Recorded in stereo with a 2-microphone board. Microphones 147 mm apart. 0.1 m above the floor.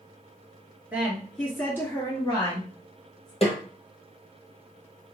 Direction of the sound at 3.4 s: 45° left (ahead or behind).